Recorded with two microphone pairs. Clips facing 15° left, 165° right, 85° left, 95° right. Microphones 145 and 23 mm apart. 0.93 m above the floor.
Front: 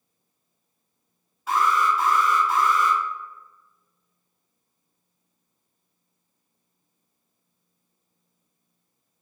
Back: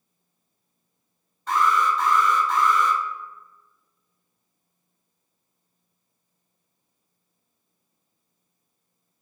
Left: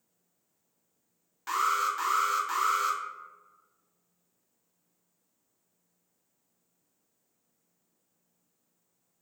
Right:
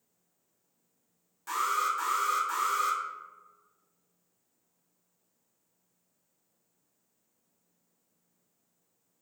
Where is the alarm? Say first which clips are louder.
Even, left 2 dB; 95° left, 0.6 m.